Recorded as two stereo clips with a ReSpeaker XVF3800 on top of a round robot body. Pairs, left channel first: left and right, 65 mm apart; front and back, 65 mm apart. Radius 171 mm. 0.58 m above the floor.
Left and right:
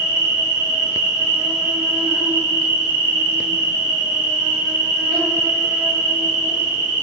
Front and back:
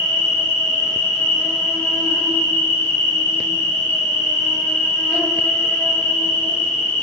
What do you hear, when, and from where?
0.0 s an insect: 60° right, 2 m